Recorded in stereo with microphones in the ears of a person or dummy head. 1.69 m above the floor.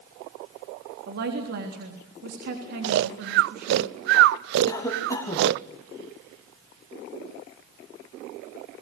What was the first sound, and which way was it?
A woman speaking, 55° right (ahead or behind).